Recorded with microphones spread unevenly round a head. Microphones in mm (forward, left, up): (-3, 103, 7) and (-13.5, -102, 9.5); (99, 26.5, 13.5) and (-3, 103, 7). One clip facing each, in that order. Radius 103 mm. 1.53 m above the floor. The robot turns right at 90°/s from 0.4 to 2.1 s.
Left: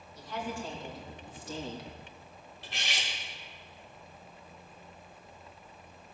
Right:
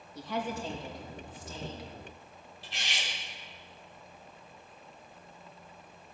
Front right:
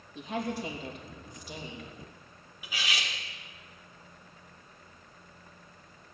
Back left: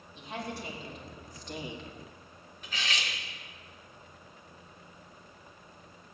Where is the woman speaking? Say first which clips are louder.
Right 3 dB, front right 5 dB; 50° right, 3 m; by 1.9 s 85° left, 3 m.